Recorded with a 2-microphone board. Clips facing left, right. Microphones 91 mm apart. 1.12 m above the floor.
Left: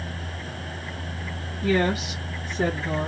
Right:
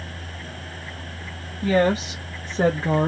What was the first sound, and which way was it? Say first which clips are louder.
A woman speaking: right 3 dB; 40° right (ahead or behind).